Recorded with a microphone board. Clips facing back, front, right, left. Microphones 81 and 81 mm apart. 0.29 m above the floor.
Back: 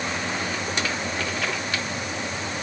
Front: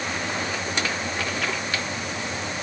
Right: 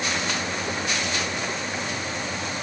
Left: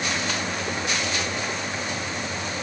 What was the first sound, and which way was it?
Only background noise.